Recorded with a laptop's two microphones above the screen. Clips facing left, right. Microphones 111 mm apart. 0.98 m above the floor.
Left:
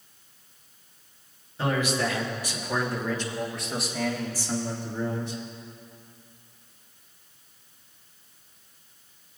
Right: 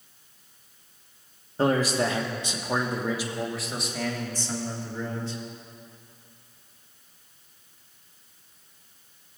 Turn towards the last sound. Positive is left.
turn(degrees=20)  # may be behind; listen again after turning